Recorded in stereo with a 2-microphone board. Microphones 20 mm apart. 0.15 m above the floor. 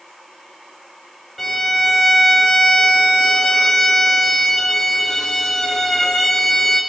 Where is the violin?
5° left (ahead or behind), 5 m.